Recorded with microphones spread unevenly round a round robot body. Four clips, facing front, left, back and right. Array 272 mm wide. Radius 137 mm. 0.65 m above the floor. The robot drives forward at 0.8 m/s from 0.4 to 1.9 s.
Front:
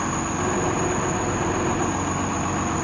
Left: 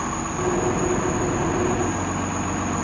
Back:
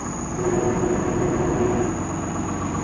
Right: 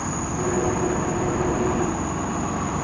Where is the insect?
90° right, 1.1 m; by 2.9 s 140° right, 1.6 m.